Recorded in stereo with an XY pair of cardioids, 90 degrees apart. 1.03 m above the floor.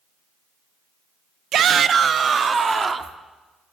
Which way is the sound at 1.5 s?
70° right.